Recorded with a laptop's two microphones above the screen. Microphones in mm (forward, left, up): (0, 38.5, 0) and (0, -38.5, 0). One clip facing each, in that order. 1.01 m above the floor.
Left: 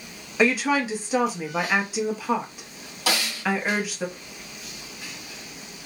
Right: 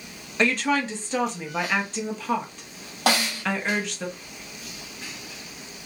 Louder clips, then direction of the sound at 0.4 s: Left 2 dB; 5° left (ahead or behind).